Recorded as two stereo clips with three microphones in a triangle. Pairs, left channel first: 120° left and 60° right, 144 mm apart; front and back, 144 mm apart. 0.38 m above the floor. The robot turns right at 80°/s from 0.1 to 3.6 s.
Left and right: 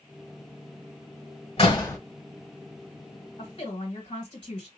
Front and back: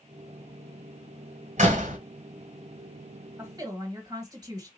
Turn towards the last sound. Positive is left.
turn(degrees=140)